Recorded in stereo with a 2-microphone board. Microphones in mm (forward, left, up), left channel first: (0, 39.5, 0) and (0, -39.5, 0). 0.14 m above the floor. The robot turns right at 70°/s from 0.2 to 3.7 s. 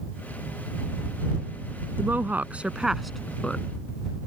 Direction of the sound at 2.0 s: 25° right (ahead or behind).